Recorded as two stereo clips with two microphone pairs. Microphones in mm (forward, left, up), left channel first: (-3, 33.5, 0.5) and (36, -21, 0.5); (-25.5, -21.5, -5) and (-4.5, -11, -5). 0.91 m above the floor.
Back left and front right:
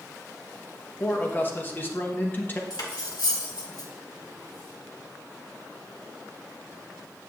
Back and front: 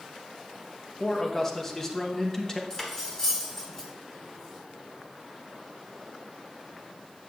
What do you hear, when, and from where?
1.0 s a man speaking: 160° left, 0.9 m
2.7 s cutlery clinking: 135° left, 1.3 m